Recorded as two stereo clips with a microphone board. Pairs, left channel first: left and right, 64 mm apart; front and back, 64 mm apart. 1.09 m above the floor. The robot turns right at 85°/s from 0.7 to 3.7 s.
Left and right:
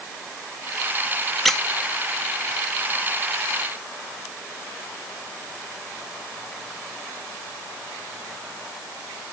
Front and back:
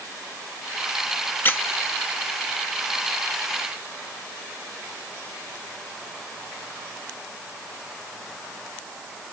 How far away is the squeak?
About 0.5 m.